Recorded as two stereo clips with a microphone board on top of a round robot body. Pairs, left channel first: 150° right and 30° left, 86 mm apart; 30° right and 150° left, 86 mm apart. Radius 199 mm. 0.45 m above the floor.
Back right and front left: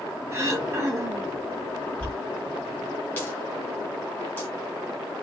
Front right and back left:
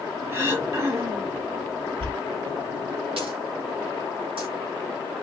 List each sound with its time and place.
0.3 s throat clearing: 90° left, 0.8 m
2.0 s a dropped coin: 140° left, 1.6 m